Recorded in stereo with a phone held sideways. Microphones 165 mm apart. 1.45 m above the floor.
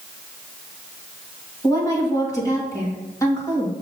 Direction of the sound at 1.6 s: 20° left (ahead or behind).